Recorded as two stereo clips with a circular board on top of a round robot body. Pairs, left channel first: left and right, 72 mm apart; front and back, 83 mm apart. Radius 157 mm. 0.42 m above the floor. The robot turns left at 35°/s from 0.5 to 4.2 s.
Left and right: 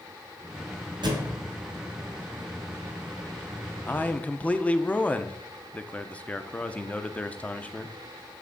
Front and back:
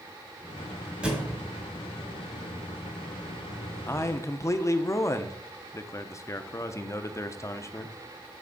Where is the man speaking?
40° left, 0.9 m; by 8.0 s 30° left, 0.9 m.